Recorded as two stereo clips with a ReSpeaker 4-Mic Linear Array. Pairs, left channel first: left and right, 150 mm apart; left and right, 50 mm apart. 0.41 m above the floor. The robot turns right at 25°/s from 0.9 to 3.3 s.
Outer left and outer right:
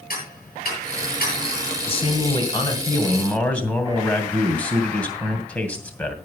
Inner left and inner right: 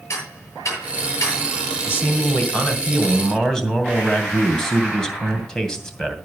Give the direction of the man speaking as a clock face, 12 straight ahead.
8 o'clock.